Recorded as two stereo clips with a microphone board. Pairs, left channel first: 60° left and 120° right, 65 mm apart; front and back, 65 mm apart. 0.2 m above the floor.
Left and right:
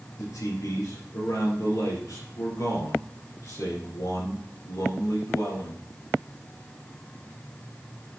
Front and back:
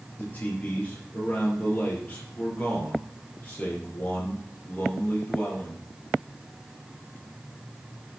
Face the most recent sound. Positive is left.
turn(degrees=60)